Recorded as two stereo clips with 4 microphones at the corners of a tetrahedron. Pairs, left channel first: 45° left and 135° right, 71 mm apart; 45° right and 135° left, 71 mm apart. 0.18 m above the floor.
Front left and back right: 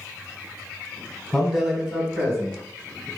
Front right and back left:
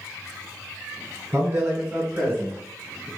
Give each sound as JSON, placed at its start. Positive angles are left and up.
{"t": 1.3, "sound": "a man speaking", "azimuth_deg": 130, "distance_m": 1.7}